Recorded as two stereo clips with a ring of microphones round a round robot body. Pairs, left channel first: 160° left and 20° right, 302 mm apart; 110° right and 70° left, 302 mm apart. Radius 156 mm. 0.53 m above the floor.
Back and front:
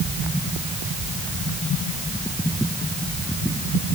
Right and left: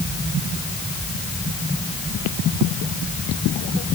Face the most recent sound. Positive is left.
No sound to turn to.